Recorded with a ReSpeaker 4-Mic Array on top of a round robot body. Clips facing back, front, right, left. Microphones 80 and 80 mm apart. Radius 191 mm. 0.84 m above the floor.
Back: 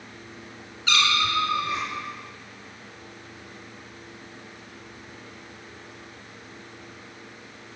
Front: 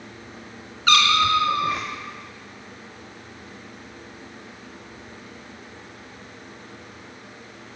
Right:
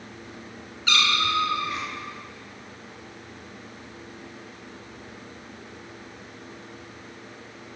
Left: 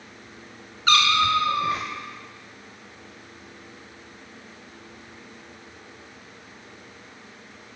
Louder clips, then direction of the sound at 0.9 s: Front 6 dB, left 5 dB; 40° left.